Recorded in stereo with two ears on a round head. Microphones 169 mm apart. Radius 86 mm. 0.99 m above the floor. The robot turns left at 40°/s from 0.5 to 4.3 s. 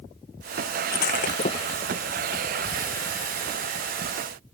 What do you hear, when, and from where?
0.9 s breaking glass: 55° left (ahead or behind); by 2.0 s 15° left (ahead or behind)